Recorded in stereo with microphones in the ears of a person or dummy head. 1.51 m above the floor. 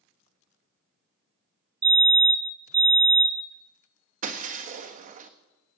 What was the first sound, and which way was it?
A fire alarm, 20° right (ahead or behind).